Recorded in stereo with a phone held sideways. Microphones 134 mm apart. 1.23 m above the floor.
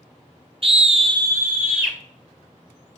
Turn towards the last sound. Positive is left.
turn(degrees=-5)  # may be behind; listen again after turning